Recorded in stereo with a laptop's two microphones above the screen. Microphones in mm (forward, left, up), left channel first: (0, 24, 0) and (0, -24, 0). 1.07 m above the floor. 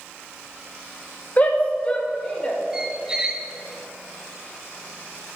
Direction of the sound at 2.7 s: 15° right (ahead or behind).